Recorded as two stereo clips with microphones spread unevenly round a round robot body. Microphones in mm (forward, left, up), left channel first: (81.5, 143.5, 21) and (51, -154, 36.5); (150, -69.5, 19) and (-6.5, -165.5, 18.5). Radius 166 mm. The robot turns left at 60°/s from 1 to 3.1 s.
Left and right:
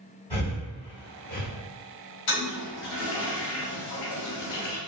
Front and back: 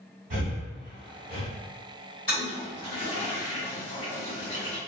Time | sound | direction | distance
0.3 | breathing | 160° left | 1.0 m
2.3 | a toilet flushing | 105° left | 1.0 m